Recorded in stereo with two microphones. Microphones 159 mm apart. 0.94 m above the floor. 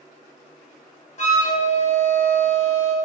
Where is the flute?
50° left (ahead or behind), 1.3 m.